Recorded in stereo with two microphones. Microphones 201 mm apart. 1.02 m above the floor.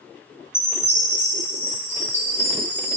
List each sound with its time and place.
0.5 s a chime: 10° left (ahead or behind), 3 m